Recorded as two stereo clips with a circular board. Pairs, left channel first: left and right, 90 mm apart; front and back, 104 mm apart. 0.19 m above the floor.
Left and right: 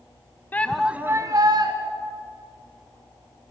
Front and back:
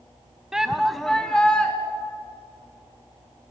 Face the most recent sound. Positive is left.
turn(degrees=-80)